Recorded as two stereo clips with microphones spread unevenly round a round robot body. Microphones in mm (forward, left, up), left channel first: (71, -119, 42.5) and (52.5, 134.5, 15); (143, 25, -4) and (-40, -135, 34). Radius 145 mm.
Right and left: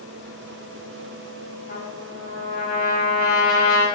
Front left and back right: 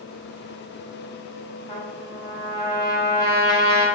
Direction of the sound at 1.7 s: 30° right.